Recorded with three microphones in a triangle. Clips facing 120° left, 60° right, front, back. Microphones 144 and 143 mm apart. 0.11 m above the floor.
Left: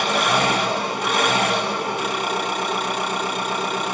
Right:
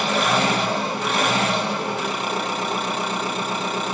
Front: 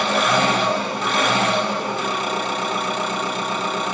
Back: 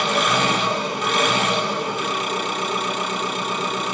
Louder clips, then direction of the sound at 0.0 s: Even, front 2 dB; 50° left.